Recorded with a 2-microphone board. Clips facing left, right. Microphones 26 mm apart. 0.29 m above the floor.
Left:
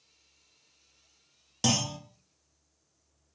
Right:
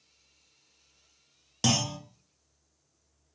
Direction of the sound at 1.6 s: 10° right (ahead or behind).